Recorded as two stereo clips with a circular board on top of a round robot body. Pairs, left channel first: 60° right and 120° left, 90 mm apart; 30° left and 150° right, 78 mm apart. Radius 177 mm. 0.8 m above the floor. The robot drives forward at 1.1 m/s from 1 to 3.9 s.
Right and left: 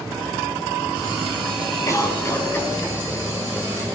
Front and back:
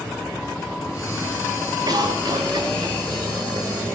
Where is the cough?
115° right, 5 m; by 4.0 s 135° right, 6.5 m.